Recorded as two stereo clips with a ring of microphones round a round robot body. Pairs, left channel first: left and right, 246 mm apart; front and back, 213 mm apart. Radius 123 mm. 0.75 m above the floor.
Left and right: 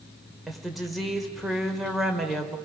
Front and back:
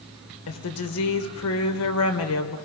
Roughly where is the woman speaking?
Ahead.